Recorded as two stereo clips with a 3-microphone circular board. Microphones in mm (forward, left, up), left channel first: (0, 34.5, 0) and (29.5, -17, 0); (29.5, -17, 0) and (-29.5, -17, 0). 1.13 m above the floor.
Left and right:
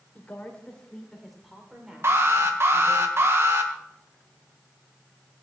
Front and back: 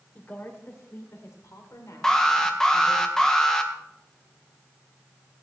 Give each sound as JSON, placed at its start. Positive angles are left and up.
{"t": 0.1, "sound": "a woman speaking", "azimuth_deg": 55, "distance_m": 3.5}
{"t": 2.0, "sound": "an alarm", "azimuth_deg": -80, "distance_m": 1.6}